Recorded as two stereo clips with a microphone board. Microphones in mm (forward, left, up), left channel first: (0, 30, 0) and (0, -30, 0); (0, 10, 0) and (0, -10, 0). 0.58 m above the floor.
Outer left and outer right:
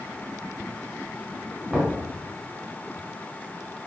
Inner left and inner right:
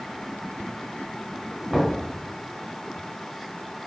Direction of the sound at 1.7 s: 5° right (ahead or behind).